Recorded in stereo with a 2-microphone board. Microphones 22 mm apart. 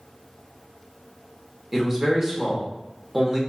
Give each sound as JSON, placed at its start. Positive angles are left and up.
{"t": 1.7, "sound": "a man speaking", "side_deg": -15, "distance_m": 1.0}